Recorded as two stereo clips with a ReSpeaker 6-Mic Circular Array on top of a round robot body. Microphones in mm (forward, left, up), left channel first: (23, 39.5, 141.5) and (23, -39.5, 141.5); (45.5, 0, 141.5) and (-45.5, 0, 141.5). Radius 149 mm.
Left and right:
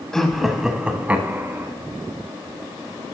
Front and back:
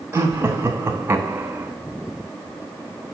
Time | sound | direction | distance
0.1 | laughter | 165° left | 1.3 m